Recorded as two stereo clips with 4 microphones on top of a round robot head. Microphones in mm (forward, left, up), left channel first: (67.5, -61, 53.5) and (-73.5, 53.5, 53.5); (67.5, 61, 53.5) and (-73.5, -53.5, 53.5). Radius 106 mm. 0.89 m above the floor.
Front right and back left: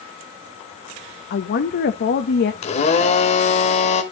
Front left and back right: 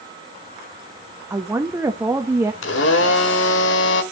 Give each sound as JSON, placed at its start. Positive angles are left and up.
{"t": 1.3, "sound": "a woman speaking", "azimuth_deg": -65, "distance_m": 0.8}
{"t": 2.6, "sound": "a blender", "azimuth_deg": 15, "distance_m": 1.1}